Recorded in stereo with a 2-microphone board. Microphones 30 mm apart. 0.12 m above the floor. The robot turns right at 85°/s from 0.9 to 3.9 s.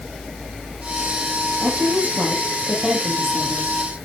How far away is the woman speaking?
About 4.5 m.